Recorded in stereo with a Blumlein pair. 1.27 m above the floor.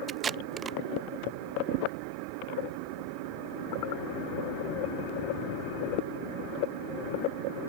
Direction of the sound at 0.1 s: 20° right.